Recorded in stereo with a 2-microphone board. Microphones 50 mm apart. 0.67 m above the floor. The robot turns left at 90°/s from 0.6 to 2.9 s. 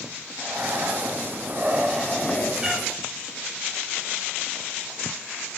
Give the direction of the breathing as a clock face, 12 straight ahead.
2 o'clock.